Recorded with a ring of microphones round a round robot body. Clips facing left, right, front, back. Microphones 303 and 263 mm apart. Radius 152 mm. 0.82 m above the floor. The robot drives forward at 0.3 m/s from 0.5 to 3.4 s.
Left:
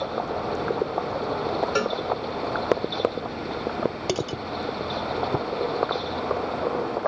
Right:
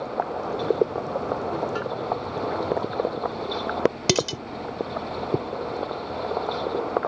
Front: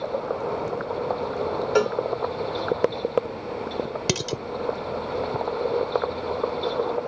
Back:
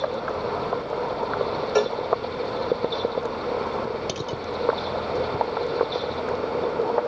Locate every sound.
1.8 s a cowbell: 75° left
4.1 s dishes clattering: 45° right